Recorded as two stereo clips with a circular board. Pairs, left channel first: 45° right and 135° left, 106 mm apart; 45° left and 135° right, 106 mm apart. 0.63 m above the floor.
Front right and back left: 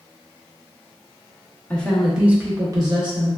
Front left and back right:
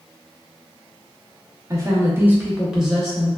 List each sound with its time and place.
1.7 s a woman speaking: 110° right, 0.8 m; by 3.3 s 130° left, 1.0 m